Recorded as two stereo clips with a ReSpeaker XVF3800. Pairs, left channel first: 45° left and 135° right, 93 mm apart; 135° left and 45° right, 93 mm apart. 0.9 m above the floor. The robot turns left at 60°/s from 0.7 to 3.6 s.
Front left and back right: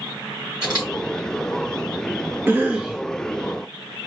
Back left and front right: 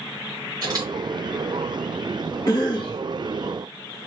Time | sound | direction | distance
0.6 | a camera shutter | 90° right | 3.5 m
2.5 | a cough | 165° left | 0.7 m